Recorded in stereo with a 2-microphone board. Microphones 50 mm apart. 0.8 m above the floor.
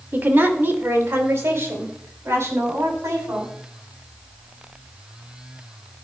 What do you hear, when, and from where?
0.1 s a woman speaking: 45° right (ahead or behind), 1.8 m; by 3.5 s 75° right (ahead or behind), 6 m